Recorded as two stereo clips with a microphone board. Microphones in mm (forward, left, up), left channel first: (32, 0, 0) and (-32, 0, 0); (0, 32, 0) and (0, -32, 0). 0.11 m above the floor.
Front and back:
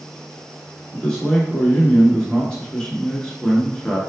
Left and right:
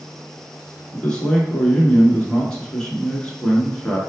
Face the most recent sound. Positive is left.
turn(degrees=35)